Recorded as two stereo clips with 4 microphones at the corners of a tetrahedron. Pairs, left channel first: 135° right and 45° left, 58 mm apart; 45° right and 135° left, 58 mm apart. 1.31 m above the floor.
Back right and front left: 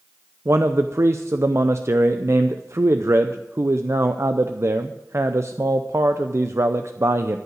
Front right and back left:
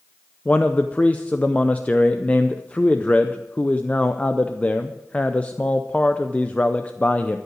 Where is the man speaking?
20° left, 0.5 m.